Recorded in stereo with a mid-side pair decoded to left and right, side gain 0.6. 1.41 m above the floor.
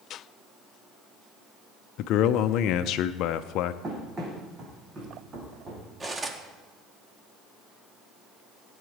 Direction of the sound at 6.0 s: 20° right.